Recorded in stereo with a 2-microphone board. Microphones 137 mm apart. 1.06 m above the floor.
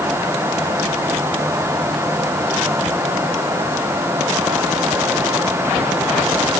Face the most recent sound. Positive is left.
No sound to turn to.